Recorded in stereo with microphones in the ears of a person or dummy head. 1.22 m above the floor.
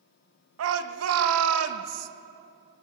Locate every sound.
0.6 s a shout: 85° right, 0.9 m